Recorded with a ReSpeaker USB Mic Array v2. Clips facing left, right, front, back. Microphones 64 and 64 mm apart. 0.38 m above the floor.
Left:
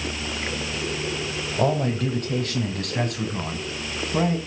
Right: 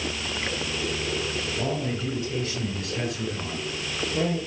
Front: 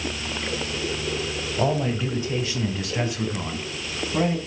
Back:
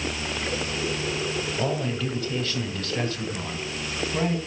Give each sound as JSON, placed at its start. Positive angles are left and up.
{"t": 1.6, "sound": "a man speaking", "azimuth_deg": 65, "distance_m": 1.8}